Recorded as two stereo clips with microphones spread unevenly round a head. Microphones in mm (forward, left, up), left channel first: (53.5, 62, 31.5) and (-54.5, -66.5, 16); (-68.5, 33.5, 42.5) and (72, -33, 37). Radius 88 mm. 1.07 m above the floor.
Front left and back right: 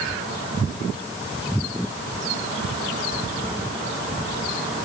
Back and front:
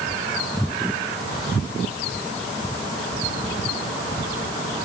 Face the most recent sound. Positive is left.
No sound to turn to.